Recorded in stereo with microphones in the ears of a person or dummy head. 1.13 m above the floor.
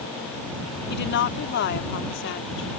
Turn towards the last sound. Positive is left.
turn(degrees=65)  # may be behind; listen again after turning